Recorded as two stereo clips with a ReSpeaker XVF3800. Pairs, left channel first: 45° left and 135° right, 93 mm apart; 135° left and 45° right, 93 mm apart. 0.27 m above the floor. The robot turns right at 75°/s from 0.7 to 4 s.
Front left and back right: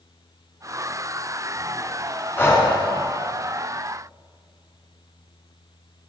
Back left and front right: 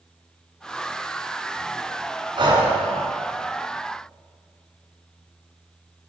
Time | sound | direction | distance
2.4 | breathing | 25° right | 2 m